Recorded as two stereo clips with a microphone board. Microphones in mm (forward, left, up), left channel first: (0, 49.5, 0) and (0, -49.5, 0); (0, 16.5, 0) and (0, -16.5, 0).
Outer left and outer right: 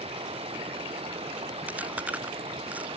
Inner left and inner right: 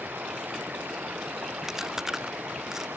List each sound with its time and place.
0.0 s running water: 90° right
1.7 s chewing: 15° right (ahead or behind)